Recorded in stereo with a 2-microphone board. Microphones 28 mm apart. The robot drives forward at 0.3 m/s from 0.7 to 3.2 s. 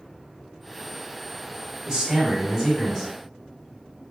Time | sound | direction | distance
1.9 | a man speaking | 15° right (ahead or behind) | 1.6 m